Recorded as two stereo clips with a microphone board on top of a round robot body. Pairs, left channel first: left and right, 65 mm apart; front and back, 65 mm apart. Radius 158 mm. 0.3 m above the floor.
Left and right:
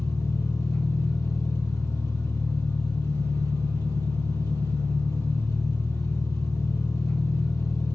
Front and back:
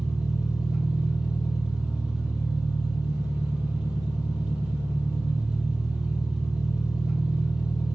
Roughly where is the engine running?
Left.